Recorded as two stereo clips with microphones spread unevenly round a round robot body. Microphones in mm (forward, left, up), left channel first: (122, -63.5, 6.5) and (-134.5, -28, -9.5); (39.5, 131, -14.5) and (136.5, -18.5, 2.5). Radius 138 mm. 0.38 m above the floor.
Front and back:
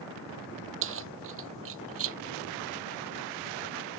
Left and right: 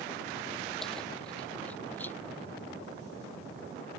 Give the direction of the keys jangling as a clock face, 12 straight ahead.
5 o'clock.